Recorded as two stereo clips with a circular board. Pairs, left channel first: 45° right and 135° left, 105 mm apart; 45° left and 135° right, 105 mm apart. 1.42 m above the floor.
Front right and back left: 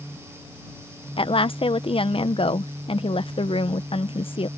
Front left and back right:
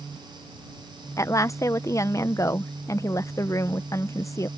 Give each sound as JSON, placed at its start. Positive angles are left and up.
{"t": 1.2, "sound": "a woman speaking", "azimuth_deg": -15}